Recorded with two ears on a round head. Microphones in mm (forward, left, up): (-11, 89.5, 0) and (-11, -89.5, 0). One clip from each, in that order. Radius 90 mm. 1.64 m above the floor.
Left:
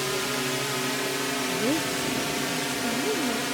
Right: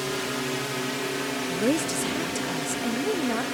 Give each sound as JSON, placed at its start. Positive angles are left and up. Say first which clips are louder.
{"t": 0.0, "sound": "a drone", "louder": "left 1 dB", "side_deg": 15}
{"t": 1.5, "sound": "a woman speaking", "louder": "right 3 dB", "side_deg": -30}